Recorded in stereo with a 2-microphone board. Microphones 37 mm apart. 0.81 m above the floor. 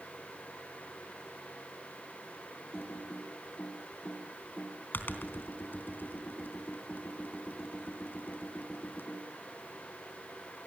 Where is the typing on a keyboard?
60° left (ahead or behind), 3 m.